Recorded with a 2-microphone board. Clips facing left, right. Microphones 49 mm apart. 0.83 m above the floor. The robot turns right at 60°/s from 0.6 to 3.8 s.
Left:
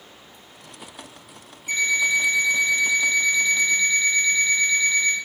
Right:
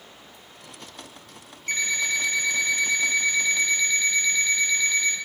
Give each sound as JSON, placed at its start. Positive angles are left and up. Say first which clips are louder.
{"t": 1.7, "sound": "an alarm clock", "louder": "left 5 dB", "azimuth_deg": -120, "distance_m": 0.7}